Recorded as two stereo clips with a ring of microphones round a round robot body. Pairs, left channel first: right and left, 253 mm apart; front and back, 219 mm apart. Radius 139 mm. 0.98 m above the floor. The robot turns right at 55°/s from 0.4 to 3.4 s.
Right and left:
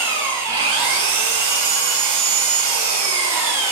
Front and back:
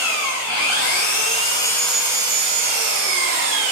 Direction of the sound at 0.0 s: 10° left.